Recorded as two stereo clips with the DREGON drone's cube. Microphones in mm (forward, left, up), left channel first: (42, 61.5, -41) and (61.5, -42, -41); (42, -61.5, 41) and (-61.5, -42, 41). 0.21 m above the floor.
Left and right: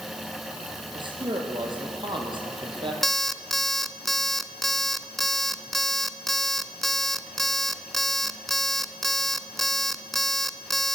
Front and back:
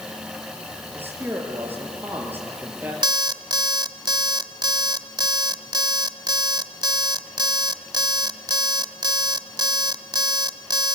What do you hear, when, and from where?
0.9 s a man speaking: 120° right, 5 m
3.0 s an alarm clock: 170° right, 0.8 m